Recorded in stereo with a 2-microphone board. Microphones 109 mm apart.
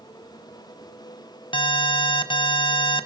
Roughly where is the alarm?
Left.